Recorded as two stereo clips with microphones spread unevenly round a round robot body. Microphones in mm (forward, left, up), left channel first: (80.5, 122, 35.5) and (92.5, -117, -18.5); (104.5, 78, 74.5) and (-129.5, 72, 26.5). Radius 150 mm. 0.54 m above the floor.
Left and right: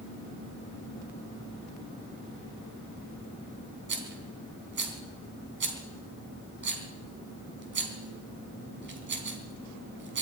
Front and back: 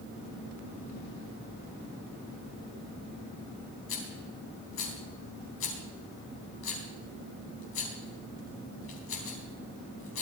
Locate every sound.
3.9 s a rattle: 45° right, 3.5 m